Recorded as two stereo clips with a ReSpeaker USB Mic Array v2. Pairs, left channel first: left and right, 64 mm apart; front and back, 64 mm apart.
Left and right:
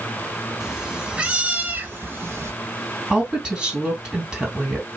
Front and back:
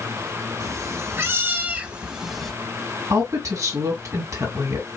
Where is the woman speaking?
170° right, 3 m.